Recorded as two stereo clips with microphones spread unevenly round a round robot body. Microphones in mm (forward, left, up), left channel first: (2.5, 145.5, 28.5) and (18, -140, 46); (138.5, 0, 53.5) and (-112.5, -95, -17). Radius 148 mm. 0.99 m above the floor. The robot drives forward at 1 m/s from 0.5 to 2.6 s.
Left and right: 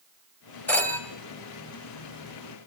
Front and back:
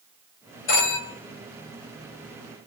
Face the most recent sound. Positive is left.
turn(degrees=25)